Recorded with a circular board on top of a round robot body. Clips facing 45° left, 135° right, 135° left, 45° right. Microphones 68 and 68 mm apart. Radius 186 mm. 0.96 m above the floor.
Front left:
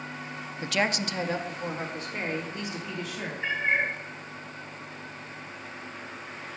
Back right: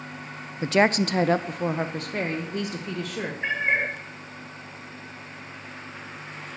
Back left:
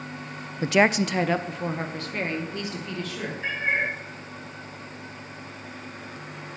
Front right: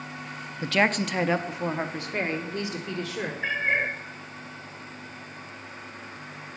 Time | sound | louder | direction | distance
0.6 | a woman speaking | back right 7 dB, back left 4 dB | 175° left | 0.5 m
3.4 | a cat meowing | back right 1 dB, even | 100° right | 1.9 m